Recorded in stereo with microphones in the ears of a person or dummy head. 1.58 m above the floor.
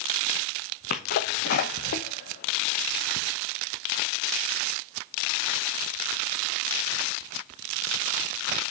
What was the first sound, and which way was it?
A sneeze, 50° left (ahead or behind).